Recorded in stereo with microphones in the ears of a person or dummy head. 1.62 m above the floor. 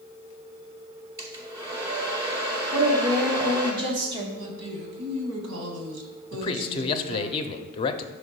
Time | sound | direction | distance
1.2 | a hair dryer | 15° right (ahead or behind) | 1.0 m
2.7 | a woman speaking | 25° right (ahead or behind) | 1.2 m
4.4 | a woman speaking | 60° right (ahead or behind) | 1.3 m
6.3 | a man speaking | 30° left (ahead or behind) | 0.5 m